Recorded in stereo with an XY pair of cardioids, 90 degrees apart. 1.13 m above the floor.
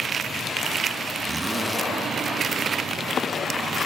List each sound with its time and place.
1.2 s a zipper: 25° right